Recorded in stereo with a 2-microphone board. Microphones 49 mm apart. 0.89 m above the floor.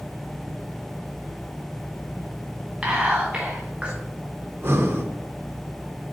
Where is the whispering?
25° right (ahead or behind), 0.9 m.